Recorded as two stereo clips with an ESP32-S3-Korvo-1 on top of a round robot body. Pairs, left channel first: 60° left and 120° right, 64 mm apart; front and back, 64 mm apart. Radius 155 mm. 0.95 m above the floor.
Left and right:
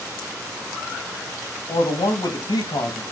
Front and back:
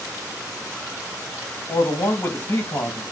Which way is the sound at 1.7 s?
65° left.